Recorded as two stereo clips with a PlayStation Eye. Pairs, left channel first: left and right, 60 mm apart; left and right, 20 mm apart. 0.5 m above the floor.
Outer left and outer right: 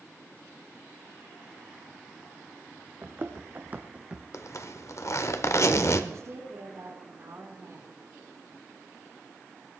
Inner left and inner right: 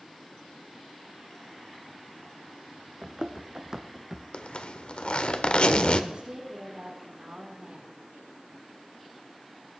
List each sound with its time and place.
3.0 s running footsteps: 40° right (ahead or behind), 1.6 m; by 4.2 s 15° right (ahead or behind), 1.1 m
4.3 s a zipper: 55° left (ahead or behind), 1.0 m
6.1 s a woman speaking: 55° right (ahead or behind), 5 m